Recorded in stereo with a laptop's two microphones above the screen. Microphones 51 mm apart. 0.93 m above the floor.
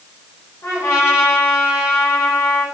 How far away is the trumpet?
About 3.5 m.